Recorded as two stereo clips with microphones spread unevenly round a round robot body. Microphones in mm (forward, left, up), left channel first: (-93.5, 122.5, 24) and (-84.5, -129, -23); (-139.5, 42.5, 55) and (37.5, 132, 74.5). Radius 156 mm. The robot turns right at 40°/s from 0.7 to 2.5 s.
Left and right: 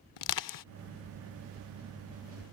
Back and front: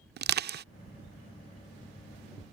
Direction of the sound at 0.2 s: 70° left.